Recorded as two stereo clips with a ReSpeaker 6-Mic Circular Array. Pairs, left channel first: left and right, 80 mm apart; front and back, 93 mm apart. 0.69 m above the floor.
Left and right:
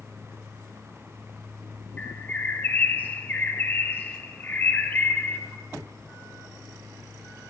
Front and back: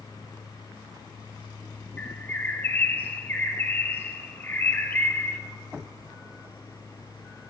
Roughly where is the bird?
Ahead left.